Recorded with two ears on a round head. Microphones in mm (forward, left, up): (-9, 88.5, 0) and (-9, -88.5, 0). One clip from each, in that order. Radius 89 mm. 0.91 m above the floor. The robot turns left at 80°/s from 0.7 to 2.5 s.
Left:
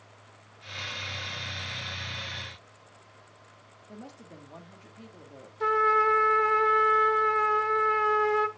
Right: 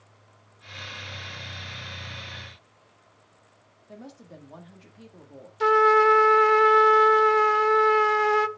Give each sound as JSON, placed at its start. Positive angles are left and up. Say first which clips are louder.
{"t": 3.9, "sound": "a woman speaking", "louder": "right 2 dB", "side_deg": 0, "distance_m": 1.7}
{"t": 5.6, "sound": "a trumpet", "louder": "right 5 dB", "side_deg": -40, "distance_m": 0.7}